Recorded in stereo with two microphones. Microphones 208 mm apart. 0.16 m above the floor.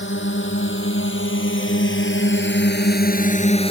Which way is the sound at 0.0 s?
65° left (ahead or behind).